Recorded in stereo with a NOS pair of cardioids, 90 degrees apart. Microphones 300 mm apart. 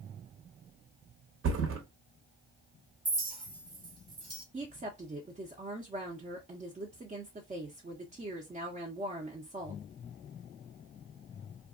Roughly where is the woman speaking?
Ahead right.